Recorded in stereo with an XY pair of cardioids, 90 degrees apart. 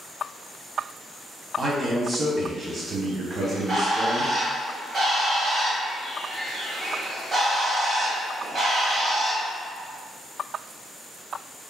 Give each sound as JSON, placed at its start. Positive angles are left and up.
{"t": 1.6, "sound": "a man speaking", "azimuth_deg": -45, "distance_m": 1.0}
{"t": 3.4, "sound": "a bird", "azimuth_deg": -60, "distance_m": 1.4}